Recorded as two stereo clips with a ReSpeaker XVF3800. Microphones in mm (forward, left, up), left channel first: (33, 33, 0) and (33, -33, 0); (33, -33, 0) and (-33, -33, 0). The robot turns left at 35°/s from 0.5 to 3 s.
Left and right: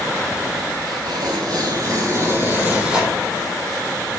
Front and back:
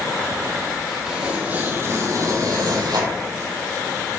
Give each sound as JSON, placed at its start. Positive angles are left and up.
{"t": 0.9, "sound": "tearing paper", "azimuth_deg": -95, "distance_m": 3.0}